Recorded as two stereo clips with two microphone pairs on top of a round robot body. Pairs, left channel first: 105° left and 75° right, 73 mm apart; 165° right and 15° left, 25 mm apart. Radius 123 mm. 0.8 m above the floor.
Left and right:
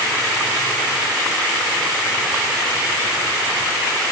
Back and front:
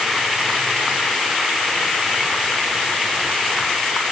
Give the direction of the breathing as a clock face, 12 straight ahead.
No breathing in this recording.